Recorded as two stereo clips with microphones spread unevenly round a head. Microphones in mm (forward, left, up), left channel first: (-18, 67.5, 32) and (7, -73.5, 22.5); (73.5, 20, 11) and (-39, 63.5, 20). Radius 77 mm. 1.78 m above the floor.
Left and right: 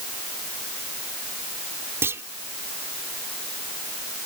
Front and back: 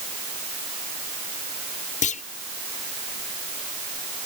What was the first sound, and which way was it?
A clunk, 5° right.